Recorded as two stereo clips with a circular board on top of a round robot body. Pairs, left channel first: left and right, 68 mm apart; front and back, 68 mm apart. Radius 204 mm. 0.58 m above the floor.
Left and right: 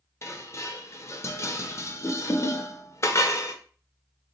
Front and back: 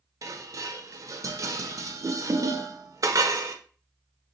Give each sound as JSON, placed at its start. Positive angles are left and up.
{"t": 0.2, "sound": "dishes clattering", "azimuth_deg": 140, "distance_m": 0.6}